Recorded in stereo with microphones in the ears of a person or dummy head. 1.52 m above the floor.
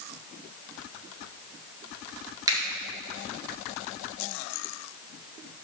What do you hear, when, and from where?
2.5 s a finger snap: 15° right (ahead or behind), 2 m